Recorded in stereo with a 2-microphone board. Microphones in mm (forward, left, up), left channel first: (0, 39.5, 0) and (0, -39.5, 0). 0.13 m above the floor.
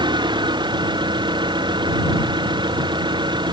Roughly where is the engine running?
Right.